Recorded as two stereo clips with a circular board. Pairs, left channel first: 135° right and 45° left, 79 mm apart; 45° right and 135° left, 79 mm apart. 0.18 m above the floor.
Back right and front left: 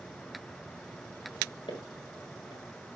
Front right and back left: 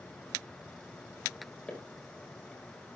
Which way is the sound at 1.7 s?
125° right.